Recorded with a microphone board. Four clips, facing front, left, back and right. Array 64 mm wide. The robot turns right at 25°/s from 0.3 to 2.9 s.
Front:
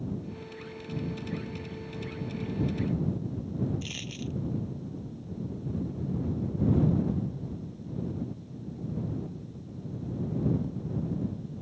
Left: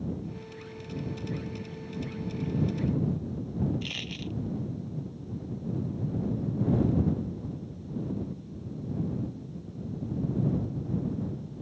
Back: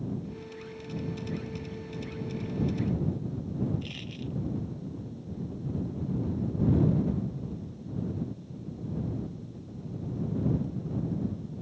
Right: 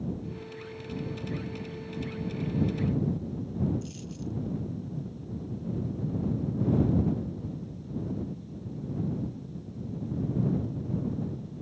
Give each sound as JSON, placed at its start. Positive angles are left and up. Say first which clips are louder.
{"t": 3.8, "sound": "a dropped coin", "louder": "left 1 dB, front 1 dB", "azimuth_deg": 80}